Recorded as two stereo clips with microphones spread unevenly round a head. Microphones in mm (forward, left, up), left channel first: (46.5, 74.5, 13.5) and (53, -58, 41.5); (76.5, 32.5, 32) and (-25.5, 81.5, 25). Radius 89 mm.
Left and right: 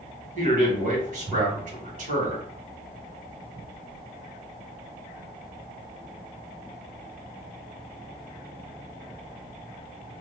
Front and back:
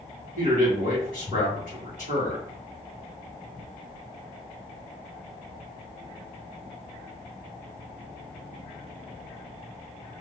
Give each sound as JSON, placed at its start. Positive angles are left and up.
{"t": 0.3, "sound": "a man speaking", "azimuth_deg": -70, "distance_m": 1.7}